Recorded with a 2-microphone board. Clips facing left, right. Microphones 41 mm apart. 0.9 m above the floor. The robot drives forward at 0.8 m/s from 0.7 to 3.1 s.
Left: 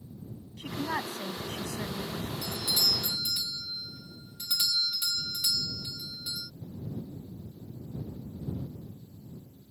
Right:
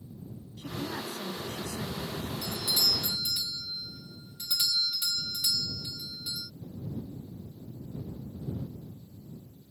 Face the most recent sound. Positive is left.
turn(degrees=10)  # may be behind; listen again after turning